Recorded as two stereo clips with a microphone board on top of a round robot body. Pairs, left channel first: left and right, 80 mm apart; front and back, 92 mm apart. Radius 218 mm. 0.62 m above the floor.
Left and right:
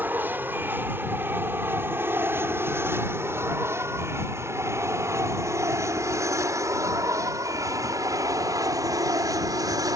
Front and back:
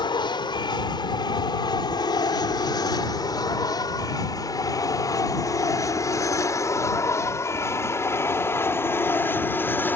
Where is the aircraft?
25° right; by 10.0 s 65° right.